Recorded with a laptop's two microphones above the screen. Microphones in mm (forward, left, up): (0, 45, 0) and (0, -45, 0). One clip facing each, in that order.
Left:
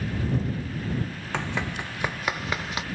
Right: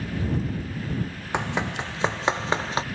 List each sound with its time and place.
1.3 s running footsteps: 20° right (ahead or behind); by 2.9 s 30° right (ahead or behind)